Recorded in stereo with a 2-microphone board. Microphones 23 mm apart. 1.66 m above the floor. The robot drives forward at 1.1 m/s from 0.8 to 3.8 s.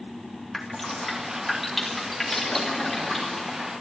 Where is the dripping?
5° left (ahead or behind), 2 m; by 3.7 s centre (ahead or behind), 5 m.